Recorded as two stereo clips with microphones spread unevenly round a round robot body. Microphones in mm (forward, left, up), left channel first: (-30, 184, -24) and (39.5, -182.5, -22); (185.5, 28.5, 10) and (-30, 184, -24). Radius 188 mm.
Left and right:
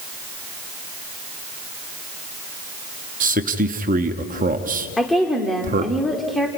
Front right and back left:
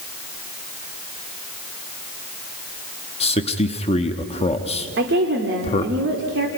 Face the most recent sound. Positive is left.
turn(degrees=-170)